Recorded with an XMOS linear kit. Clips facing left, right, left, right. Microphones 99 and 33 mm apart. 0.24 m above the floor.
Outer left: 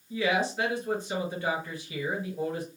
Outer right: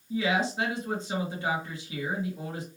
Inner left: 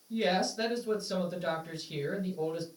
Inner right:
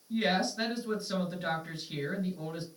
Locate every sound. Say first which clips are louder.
0.1 s a woman speaking: even, even; 25° right (ahead or behind), 3 m